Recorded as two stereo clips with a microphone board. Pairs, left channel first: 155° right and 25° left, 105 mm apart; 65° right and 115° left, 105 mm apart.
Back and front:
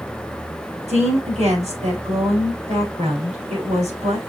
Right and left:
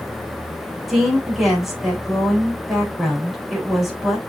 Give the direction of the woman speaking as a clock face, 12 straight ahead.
11 o'clock.